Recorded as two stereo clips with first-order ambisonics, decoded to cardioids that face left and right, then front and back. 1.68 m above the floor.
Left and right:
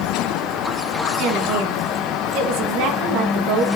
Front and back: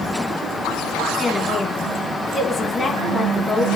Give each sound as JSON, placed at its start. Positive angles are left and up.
{"t": 1.2, "sound": "a woman speaking", "azimuth_deg": -70, "distance_m": 2.5}